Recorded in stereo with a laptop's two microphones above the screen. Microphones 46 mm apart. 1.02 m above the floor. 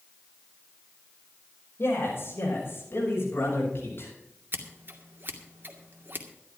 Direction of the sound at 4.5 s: 55° right (ahead or behind).